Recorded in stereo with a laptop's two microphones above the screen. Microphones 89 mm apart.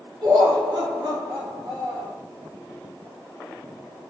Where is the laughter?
65° right (ahead or behind), 1.6 m.